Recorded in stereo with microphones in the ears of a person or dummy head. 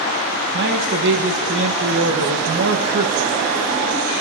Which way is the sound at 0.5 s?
60° right (ahead or behind).